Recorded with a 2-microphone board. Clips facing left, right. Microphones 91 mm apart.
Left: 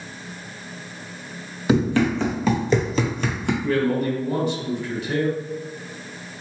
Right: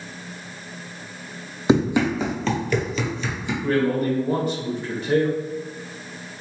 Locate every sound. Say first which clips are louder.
1.7 s running footsteps: right 1 dB; 25° right (ahead or behind), 1.1 m; by 3.5 s 65° left (ahead or behind), 0.9 m
3.6 s a man speaking: right 2 dB; 40° right (ahead or behind), 1.5 m